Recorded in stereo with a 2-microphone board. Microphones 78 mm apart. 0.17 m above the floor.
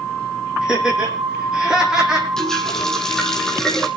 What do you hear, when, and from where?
0.6 s laughter: 10° right (ahead or behind), 9.5 m; by 2.3 s 5° right (ahead or behind), 11.5 m
2.4 s a running tap: 10° left (ahead or behind), 4.5 m